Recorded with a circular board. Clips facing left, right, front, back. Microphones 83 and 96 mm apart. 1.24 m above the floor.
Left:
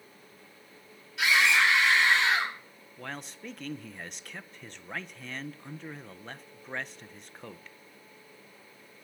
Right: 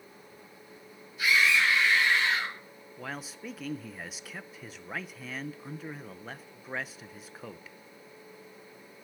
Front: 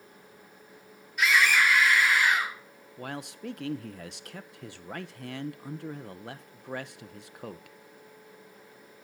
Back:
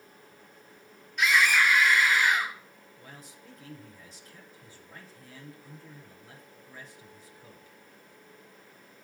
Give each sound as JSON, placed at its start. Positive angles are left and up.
{"t": 1.2, "sound": "a scream", "azimuth_deg": 85, "distance_m": 8.5}
{"t": 3.0, "sound": "a man speaking", "azimuth_deg": -5, "distance_m": 0.8}